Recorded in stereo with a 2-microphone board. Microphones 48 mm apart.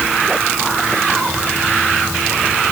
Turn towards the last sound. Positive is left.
No sound to turn to.